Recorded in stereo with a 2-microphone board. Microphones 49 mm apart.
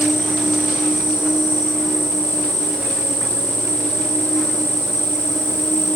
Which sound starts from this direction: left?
An insect, at 0.0 s.